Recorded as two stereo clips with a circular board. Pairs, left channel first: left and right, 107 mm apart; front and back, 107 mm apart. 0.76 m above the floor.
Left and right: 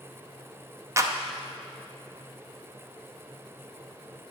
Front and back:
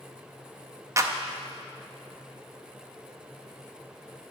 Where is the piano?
No piano in this recording.